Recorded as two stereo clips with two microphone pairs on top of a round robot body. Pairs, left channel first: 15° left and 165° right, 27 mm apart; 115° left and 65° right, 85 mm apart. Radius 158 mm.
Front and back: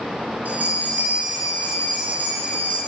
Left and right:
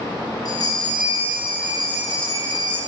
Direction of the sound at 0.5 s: 160° left.